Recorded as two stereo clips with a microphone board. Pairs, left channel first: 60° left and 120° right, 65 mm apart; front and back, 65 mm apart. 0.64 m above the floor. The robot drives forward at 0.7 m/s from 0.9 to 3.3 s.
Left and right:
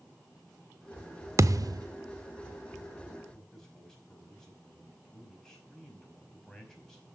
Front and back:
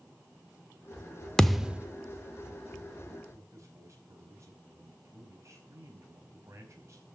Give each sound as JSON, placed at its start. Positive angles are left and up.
{"t": 1.4, "sound": "a thud", "azimuth_deg": -80, "distance_m": 0.5}
{"t": 3.3, "sound": "a man speaking", "azimuth_deg": 140, "distance_m": 5.0}